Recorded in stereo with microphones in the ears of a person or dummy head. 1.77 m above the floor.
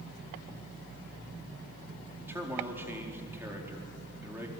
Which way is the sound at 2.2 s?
15° right (ahead or behind).